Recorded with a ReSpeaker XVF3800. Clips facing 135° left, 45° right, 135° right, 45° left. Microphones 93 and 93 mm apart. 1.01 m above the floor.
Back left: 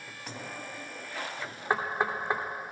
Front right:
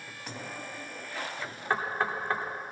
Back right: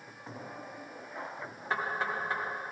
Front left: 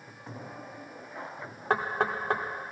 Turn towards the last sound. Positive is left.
turn(degrees=65)